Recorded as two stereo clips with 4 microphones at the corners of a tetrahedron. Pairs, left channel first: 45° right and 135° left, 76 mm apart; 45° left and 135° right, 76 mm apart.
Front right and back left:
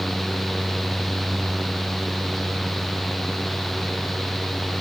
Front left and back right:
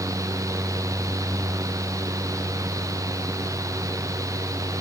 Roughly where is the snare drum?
I don't hear a snare drum.